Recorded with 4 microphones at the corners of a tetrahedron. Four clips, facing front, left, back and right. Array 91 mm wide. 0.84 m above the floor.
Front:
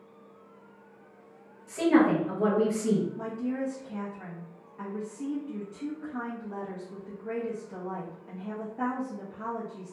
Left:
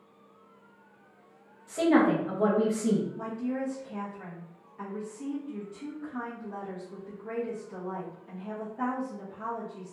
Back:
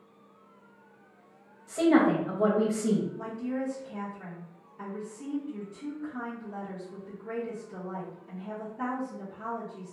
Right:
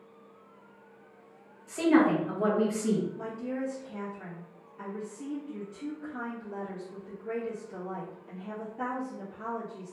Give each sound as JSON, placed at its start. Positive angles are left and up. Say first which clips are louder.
{"t": 1.7, "sound": "a woman speaking", "louder": "even, even", "azimuth_deg": 145, "distance_m": 1.0}
{"t": 3.2, "sound": "a woman speaking", "louder": "left 2 dB, front 1 dB", "azimuth_deg": 10, "distance_m": 1.0}